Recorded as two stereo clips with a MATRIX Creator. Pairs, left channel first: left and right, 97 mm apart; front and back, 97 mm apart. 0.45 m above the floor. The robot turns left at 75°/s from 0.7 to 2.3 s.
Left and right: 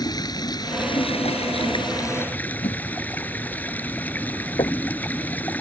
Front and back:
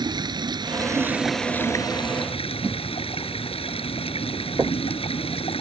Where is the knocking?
115° left.